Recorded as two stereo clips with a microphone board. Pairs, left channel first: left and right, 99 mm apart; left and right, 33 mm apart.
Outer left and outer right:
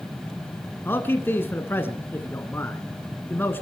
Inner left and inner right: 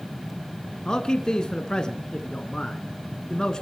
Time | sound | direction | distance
0.8 | a man speaking | 20° left (ahead or behind) | 1.2 m